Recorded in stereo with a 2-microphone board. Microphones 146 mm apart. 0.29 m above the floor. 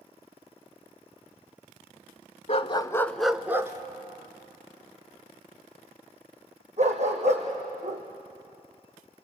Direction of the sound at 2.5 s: 50° left (ahead or behind).